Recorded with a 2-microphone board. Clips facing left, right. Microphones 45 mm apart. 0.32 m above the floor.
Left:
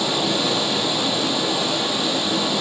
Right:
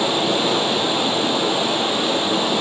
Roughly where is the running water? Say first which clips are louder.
Right 3 dB; right.